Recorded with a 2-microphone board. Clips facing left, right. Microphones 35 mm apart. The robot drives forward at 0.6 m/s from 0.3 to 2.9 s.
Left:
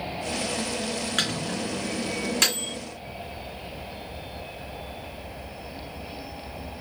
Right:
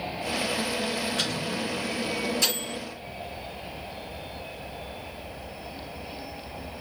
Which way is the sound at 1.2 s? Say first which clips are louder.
Left 1 dB; 70° left (ahead or behind).